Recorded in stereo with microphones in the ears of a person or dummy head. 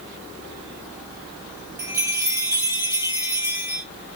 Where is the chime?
15° right (ahead or behind), 1.0 m.